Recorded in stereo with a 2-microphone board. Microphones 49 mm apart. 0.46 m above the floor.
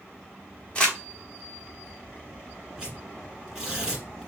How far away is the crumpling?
About 0.9 m.